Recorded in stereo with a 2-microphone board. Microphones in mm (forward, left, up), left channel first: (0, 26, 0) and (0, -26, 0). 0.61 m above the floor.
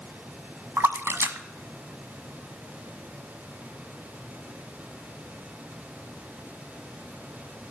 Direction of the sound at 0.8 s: 50° right (ahead or behind).